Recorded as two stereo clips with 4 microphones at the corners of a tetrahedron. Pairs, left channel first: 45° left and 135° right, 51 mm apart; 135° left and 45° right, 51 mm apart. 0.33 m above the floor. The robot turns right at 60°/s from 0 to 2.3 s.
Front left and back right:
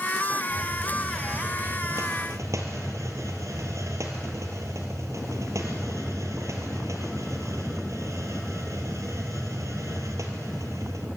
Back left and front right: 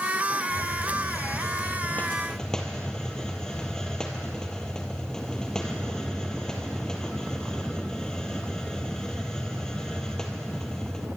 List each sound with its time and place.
0.5 s a hiss: 105° left, 3 m; by 11.1 s 145° right, 3 m